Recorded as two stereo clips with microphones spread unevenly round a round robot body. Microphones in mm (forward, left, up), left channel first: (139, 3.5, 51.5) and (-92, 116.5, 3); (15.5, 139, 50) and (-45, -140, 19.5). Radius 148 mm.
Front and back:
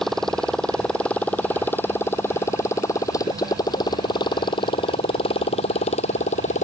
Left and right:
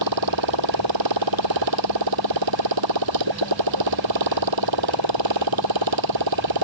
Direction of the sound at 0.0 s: 115° right.